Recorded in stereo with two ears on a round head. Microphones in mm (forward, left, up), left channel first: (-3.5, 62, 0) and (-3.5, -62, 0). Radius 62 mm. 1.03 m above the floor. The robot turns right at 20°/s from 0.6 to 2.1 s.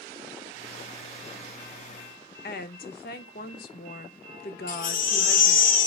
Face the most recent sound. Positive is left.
turn(degrees=65)  # may be behind; listen again after turning